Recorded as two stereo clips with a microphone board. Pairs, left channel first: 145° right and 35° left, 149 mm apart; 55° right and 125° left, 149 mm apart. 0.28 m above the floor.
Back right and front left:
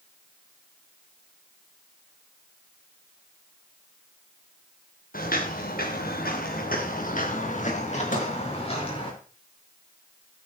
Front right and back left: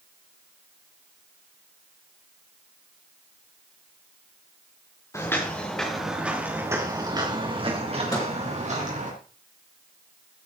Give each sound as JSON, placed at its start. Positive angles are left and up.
{"t": 5.1, "sound": "footsteps", "azimuth_deg": -125, "distance_m": 3.5}
{"t": 8.1, "sound": "a microwave", "azimuth_deg": -120, "distance_m": 4.0}